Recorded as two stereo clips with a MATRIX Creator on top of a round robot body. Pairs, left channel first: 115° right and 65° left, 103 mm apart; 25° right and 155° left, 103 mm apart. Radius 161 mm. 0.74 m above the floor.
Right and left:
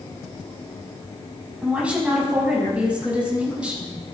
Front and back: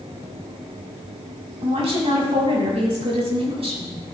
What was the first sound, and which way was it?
A woman speaking, 145° left.